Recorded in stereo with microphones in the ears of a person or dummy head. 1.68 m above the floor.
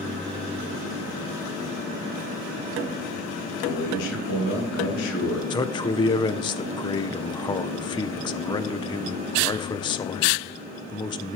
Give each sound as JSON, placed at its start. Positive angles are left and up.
{"t": 3.6, "sound": "a man speaking", "side_deg": 70, "distance_m": 3.5}
{"t": 5.5, "sound": "a man speaking", "side_deg": 25, "distance_m": 0.9}